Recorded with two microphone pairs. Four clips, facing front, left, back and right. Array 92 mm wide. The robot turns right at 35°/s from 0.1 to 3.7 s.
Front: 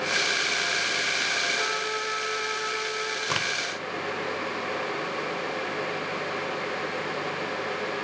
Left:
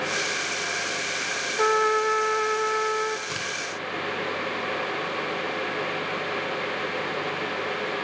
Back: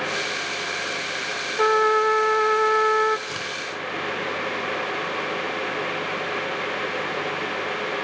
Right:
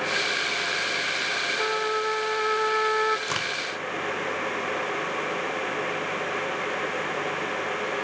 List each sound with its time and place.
1.6 s a trumpet: 155° left, 1.5 m; by 3.2 s 150° right, 1.5 m
3.3 s a crack: 40° right, 4 m; by 3.5 s 30° right, 4 m